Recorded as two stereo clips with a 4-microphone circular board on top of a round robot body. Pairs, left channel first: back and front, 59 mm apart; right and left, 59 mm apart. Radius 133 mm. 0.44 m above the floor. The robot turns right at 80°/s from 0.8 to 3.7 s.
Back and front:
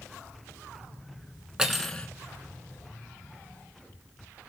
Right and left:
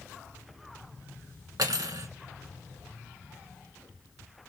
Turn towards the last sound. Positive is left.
turn(degrees=-120)